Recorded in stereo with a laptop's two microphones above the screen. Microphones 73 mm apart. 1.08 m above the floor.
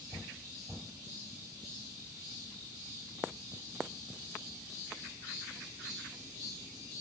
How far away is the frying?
No frying in this recording.